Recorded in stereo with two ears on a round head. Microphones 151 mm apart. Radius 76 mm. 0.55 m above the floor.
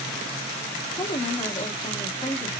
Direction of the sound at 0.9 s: 25° left (ahead or behind).